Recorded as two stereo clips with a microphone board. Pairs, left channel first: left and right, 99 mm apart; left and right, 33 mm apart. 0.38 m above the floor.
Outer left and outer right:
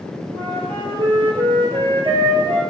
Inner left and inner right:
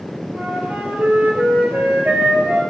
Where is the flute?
75° right (ahead or behind), 1.1 m.